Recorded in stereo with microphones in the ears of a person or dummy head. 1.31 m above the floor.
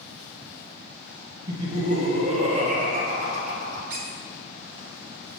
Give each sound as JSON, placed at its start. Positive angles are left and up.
{"t": 1.5, "sound": "laughter", "side_deg": -40, "distance_m": 1.2}
{"t": 3.9, "sound": "a squeak", "side_deg": -50, "distance_m": 1.2}